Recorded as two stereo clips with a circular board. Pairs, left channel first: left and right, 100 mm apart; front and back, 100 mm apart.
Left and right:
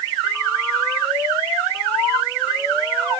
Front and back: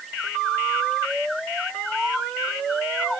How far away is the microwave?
I don't hear a microwave.